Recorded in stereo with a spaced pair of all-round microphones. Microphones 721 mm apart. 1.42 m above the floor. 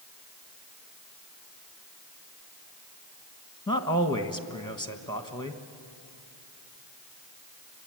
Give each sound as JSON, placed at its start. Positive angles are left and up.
{"t": 3.7, "sound": "a man speaking", "side_deg": 5, "distance_m": 1.2}